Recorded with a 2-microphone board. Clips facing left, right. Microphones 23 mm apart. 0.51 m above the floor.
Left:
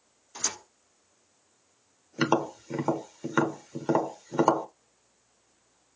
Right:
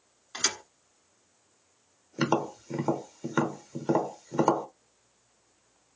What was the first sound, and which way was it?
A thud, 80° right.